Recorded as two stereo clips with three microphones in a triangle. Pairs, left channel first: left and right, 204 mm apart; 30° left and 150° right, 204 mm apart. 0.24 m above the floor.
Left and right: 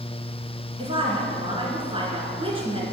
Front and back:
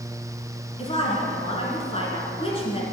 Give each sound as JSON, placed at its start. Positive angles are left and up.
{"t": 0.8, "sound": "a woman speaking", "azimuth_deg": -30, "distance_m": 2.5}